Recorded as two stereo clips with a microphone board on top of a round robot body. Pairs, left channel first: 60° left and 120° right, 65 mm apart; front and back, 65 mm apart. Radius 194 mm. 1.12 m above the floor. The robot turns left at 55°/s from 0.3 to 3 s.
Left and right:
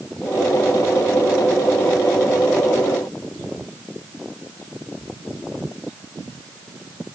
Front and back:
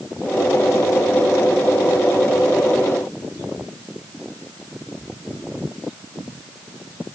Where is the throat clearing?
No throat clearing in this recording.